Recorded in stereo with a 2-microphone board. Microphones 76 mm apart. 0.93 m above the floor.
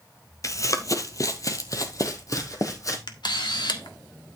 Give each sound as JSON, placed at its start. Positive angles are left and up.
{"t": 0.4, "sound": "running footsteps", "side_deg": 45, "distance_m": 1.3}
{"t": 3.1, "sound": "a camera shutter", "side_deg": 75, "distance_m": 1.7}